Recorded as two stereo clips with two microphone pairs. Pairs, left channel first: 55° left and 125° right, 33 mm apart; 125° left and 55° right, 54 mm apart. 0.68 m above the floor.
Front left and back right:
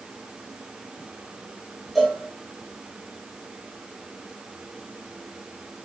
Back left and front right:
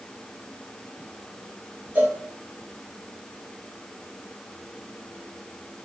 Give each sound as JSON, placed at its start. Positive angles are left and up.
{"t": 1.9, "sound": "a cowbell", "azimuth_deg": -40, "distance_m": 1.0}